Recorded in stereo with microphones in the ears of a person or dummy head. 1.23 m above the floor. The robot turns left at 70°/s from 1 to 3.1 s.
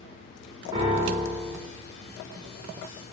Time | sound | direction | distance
0.7 | a piano | 10° right (ahead or behind) | 0.8 m